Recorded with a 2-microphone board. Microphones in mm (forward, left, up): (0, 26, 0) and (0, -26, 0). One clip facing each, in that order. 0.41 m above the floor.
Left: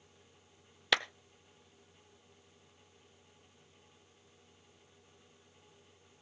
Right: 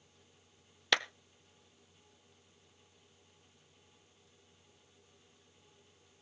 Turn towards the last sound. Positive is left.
turn(degrees=5)  # may be behind; listen again after turning